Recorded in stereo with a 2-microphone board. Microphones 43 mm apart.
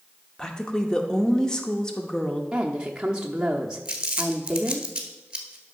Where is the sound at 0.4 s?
15° left (ahead or behind), 1.1 m.